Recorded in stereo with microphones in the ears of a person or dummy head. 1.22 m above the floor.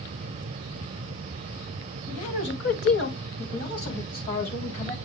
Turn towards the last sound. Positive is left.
turn(degrees=40)  # may be behind; listen again after turning